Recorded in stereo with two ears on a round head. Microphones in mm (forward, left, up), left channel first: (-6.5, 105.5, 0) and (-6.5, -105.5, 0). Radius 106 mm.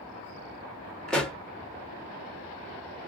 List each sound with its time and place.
1.1 s a pop: 5° left (ahead or behind), 0.9 m